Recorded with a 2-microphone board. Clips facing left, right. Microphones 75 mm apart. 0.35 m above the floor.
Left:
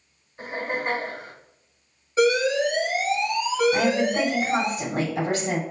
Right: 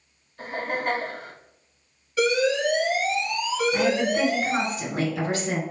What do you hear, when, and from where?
0.4 s laughter: 20° left (ahead or behind), 1.6 m
2.2 s an alarm: 30° left (ahead or behind), 1.6 m
3.7 s a woman speaking: 50° left (ahead or behind), 2.0 m